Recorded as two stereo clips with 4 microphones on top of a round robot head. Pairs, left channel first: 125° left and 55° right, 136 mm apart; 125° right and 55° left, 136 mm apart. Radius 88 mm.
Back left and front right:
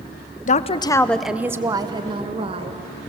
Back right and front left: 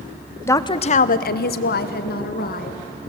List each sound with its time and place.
0.5 s a woman speaking: 160° left, 0.8 m; by 2.8 s 105° right, 2 m